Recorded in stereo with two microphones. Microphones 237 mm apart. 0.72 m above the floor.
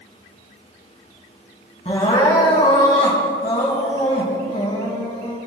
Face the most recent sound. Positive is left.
turn(degrees=30)  # may be behind; listen again after turning